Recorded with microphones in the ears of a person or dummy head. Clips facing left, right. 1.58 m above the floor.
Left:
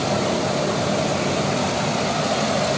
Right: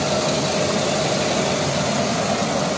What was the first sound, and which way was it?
Only background noise.